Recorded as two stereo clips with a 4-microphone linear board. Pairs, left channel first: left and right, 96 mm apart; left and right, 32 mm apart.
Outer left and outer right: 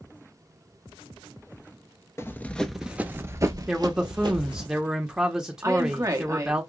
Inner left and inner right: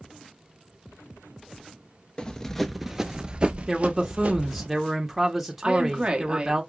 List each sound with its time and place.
2.2 s running footsteps: 30° left (ahead or behind), 0.6 m; by 4.7 s 60° right (ahead or behind), 1.3 m
3.7 s a man speaking: 5° right (ahead or behind), 0.7 m
5.6 s a woman speaking: 35° right (ahead or behind), 1.0 m